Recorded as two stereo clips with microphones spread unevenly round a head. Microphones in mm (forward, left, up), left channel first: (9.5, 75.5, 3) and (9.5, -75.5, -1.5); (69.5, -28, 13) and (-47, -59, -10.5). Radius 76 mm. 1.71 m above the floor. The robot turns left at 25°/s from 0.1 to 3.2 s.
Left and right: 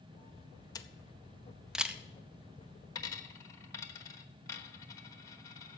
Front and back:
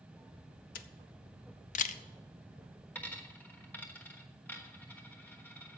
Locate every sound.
0.8 s a camera shutter: 20° left, 0.7 m; by 2.0 s 10° right, 0.7 m
3.0 s a dropped coin: 55° left, 1.1 m; by 5.8 s 50° left, 1.1 m